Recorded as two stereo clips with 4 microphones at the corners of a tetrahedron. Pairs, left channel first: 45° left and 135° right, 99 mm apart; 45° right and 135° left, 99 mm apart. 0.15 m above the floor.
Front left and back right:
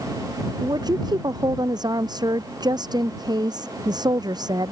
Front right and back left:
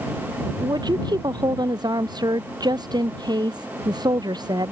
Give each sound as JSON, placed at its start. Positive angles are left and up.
{"t": 0.6, "sound": "a woman speaking", "azimuth_deg": 180}